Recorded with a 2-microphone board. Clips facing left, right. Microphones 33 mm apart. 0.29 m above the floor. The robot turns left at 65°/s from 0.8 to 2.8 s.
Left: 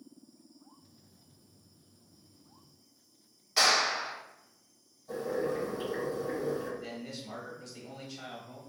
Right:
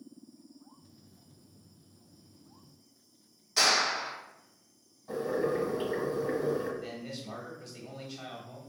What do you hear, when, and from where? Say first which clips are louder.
3.6 s a clap: even; 20° left (ahead or behind), 1.8 m
5.1 s boiling: right 2 dB; 30° right (ahead or behind), 1.3 m
6.8 s a man speaking: right 1 dB; 5° right (ahead or behind), 1.0 m